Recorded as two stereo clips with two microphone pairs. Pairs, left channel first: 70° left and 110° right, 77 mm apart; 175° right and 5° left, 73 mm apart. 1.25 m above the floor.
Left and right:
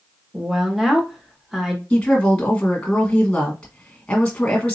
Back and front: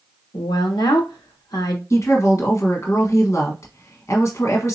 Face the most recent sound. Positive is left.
turn(degrees=145)